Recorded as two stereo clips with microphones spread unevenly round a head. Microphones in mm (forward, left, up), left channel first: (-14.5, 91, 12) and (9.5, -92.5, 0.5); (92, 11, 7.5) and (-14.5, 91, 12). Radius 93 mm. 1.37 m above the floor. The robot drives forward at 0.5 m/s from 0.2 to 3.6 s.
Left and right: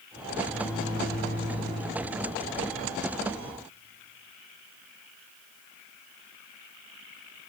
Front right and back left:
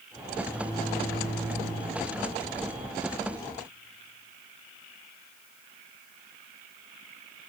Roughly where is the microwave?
Behind left.